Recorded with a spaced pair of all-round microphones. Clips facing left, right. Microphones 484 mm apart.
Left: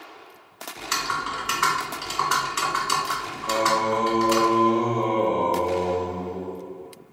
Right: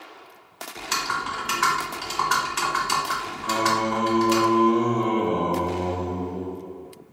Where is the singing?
35° right (ahead or behind), 0.6 m.